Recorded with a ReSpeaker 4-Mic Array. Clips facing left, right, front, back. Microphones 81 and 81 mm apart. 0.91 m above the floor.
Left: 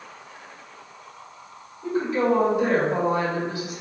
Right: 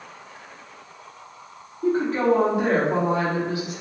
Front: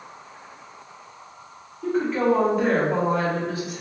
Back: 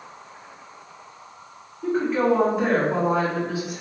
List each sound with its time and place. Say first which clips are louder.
1.8 s a woman speaking: right 2 dB, even; 95° right, 1.7 m